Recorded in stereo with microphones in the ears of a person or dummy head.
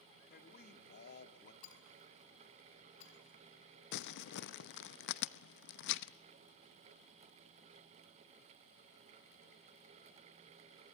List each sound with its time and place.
0.3 s a man speaking: 55° left (ahead or behind), 2.5 m
1.6 s breaking glass: 40° left (ahead or behind), 3.5 m
3.9 s crumpling: 65° left (ahead or behind), 0.7 m